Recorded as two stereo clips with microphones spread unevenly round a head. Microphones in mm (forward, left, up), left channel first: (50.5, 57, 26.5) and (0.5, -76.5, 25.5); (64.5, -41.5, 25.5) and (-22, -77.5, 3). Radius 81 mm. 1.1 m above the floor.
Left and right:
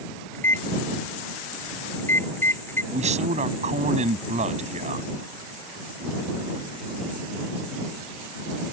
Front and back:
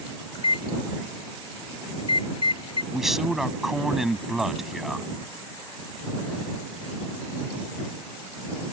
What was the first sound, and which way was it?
A microwave, 5° right.